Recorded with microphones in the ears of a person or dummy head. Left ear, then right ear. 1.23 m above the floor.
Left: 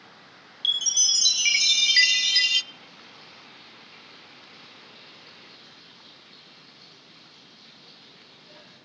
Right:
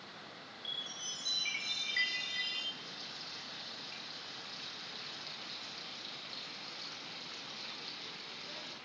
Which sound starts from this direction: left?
A chime, at 0.6 s.